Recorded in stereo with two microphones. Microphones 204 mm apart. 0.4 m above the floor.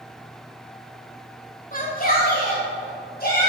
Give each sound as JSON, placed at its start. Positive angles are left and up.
{"t": 1.7, "sound": "a shout", "side_deg": 40, "distance_m": 1.3}